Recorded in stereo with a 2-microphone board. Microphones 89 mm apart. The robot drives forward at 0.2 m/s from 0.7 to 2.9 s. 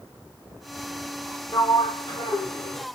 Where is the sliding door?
50° left (ahead or behind), 0.9 m.